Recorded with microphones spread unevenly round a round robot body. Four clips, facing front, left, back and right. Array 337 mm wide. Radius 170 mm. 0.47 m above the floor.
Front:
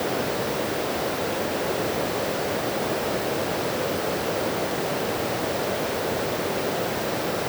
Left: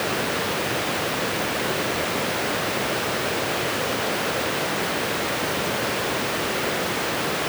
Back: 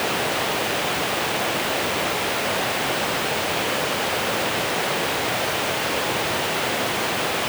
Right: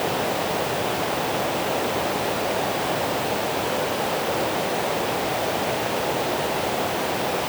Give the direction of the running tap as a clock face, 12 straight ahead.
No running tap in this recording.